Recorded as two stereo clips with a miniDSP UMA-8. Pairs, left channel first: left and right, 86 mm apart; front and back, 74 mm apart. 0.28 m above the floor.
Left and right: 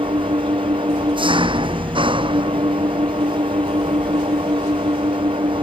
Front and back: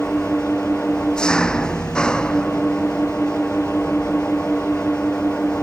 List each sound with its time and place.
0.0 s an engine running: 80° right